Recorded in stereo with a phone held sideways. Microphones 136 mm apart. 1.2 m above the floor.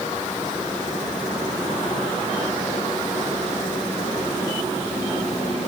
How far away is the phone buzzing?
I don't hear a phone buzzing.